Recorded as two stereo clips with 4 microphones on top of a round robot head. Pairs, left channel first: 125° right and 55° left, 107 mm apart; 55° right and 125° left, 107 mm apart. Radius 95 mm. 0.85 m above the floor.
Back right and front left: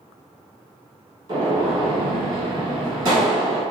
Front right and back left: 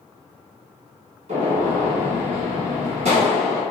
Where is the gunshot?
110° left, 1.6 m.